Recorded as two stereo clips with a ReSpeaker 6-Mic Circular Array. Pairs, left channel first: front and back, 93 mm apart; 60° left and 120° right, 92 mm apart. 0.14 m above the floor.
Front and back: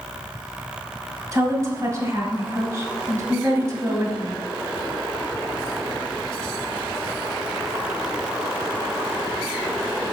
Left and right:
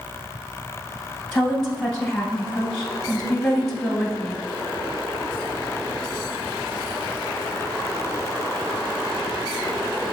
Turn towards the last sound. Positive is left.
turn(degrees=145)